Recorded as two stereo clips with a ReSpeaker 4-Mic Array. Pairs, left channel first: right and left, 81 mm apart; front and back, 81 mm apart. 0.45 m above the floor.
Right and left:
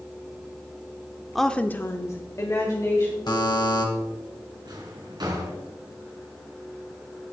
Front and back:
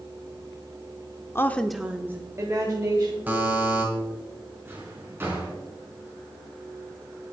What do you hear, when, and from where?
1.4 s a woman speaking: 5° right, 0.8 m; by 3.2 s 140° right, 2.5 m
3.3 s a buzzer: 110° right, 2.5 m
4.7 s a drawer: 120° left, 3 m